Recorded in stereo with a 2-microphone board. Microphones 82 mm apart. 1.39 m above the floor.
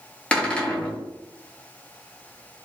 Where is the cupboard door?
15° left (ahead or behind), 0.7 m.